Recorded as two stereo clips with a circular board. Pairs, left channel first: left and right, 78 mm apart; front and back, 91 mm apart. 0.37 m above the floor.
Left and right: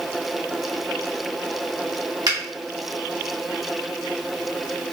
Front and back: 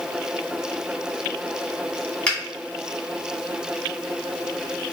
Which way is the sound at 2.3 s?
75° right.